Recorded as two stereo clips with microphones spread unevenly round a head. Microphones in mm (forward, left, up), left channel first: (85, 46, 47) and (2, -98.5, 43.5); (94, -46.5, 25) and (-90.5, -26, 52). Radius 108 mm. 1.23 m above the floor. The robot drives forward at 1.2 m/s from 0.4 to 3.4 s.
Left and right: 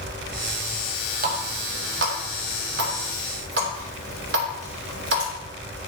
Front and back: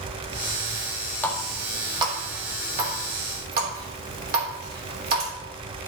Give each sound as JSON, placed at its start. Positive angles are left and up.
{"t": 1.2, "sound": "a running tap", "azimuth_deg": -90, "distance_m": 1.6}